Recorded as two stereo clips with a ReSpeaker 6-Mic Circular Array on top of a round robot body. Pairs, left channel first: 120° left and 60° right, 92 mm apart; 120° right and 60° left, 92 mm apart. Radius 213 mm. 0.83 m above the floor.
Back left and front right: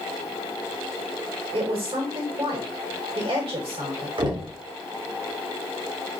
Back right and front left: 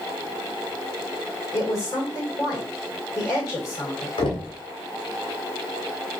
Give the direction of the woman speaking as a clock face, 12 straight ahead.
2 o'clock.